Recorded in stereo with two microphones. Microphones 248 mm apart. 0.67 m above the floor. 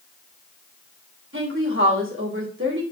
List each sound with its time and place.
1.3 s a woman speaking: 55° right (ahead or behind), 3 m